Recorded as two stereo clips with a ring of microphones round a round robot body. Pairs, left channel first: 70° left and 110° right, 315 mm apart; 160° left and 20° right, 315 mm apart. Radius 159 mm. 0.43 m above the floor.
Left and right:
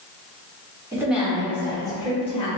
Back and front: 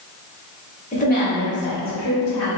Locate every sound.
0.9 s a woman speaking: straight behind, 0.9 m; by 2.5 s 135° left, 1.4 m